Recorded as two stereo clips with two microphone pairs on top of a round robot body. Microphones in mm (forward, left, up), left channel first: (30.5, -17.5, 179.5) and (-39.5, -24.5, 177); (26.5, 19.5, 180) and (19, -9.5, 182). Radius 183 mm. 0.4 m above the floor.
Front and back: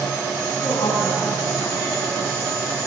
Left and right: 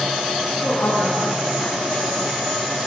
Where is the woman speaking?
40° left, 7.5 m; by 2.4 s 50° left, 8.5 m.